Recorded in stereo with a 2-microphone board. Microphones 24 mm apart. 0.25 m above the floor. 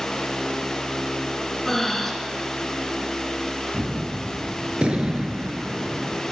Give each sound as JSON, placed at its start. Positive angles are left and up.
{"t": 1.6, "sound": "breathing", "side_deg": 10, "distance_m": 2.0}
{"t": 3.7, "sound": "a gunshot", "side_deg": -55, "distance_m": 1.3}